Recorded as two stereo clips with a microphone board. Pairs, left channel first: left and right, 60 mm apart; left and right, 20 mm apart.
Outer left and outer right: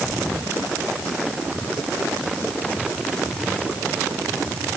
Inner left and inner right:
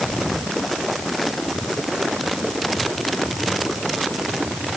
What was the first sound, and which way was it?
Only background noise.